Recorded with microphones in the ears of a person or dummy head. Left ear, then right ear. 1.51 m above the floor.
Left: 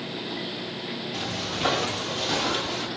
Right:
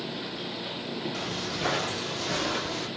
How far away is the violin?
I don't hear a violin.